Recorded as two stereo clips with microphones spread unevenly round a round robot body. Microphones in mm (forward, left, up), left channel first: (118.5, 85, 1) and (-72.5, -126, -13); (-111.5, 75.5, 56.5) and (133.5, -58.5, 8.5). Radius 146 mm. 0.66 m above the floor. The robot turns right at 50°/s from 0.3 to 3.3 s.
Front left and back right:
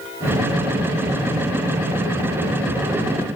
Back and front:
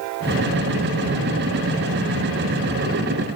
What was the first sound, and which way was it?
Only background noise.